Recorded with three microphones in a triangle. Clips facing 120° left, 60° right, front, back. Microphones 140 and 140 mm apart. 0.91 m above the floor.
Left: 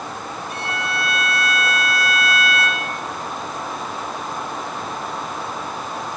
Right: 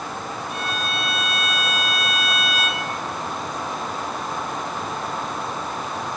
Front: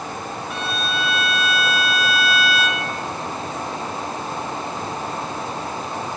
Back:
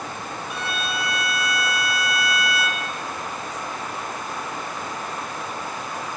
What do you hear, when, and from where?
0.5 s a violin: 100° left, 2.5 m